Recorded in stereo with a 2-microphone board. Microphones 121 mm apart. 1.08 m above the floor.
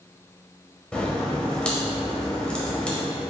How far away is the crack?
About 0.9 m.